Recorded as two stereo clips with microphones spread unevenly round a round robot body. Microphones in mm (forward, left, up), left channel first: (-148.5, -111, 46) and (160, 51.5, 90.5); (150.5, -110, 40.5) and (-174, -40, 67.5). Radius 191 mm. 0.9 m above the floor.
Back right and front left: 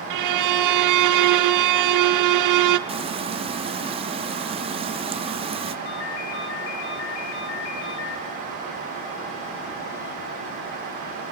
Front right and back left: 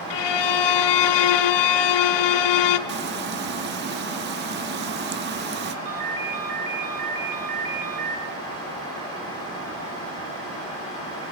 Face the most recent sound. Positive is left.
turn(degrees=-170)